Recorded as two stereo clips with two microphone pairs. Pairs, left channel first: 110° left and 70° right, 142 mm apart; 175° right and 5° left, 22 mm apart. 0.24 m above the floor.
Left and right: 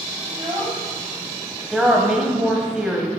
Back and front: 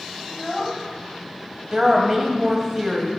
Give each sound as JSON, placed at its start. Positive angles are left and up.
{"t": 0.3, "sound": "a child speaking", "azimuth_deg": -115, "distance_m": 0.9}
{"t": 1.7, "sound": "a woman speaking", "azimuth_deg": 5, "distance_m": 1.0}